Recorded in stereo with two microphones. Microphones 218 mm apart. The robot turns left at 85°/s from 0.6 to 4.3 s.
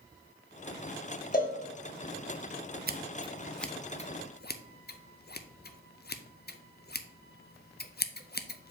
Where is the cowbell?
45° left (ahead or behind), 1.4 m; by 1.6 s 25° left (ahead or behind), 1.4 m.